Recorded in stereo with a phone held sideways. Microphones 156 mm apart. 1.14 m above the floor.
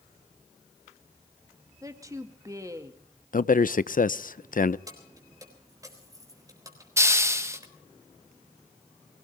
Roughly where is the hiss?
Centre.